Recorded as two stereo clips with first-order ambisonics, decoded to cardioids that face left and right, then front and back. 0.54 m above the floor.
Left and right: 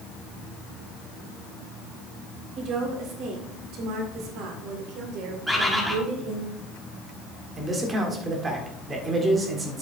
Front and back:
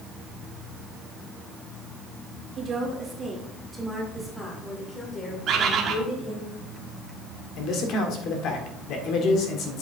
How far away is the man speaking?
About 1.7 m.